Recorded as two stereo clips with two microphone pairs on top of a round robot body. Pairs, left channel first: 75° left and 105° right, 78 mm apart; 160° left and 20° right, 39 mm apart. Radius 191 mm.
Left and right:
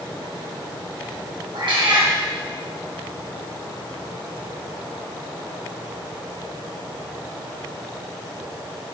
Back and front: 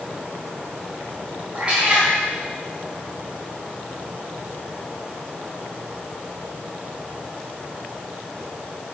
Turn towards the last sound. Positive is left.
turn(degrees=-85)